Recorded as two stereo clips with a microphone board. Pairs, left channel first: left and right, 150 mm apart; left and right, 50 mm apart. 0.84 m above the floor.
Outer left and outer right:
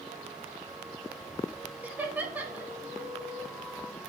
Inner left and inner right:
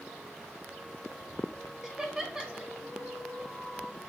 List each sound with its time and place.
1.8 s laughter: 10° right (ahead or behind), 1.6 m